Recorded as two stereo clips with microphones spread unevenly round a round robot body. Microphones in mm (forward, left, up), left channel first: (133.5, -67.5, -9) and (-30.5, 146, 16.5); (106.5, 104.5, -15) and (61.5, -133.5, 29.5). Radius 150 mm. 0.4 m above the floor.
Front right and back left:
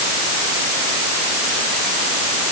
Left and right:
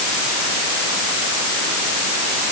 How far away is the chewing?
No chewing in this recording.